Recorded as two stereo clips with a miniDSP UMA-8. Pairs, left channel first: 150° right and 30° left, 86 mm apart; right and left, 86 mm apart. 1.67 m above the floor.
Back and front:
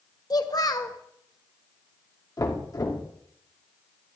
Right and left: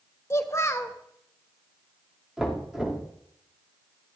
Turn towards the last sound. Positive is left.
turn(degrees=170)